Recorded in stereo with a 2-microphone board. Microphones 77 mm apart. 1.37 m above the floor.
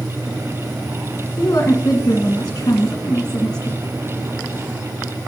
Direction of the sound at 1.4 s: 50° left (ahead or behind).